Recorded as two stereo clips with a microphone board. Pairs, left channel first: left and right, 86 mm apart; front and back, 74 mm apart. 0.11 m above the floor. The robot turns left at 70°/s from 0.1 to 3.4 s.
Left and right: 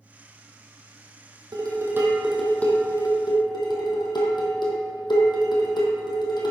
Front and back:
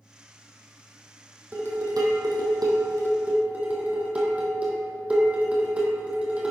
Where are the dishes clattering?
120° right, 2.5 m; by 6.5 s 110° left, 2.5 m.